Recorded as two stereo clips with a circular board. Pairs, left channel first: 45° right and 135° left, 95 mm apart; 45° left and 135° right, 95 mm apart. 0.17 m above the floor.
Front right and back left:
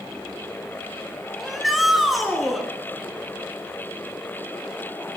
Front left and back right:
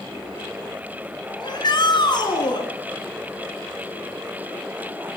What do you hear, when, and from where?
1.4 s a shout: 45° left, 2.5 m